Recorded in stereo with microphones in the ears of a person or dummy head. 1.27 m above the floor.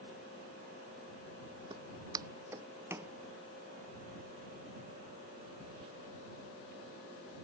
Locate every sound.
1.7 s footsteps: 25° right (ahead or behind); by 3.1 s 15° right (ahead or behind)